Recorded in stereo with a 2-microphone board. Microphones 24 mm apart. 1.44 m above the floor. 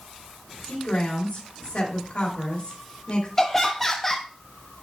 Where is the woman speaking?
75° left (ahead or behind), 3.5 m.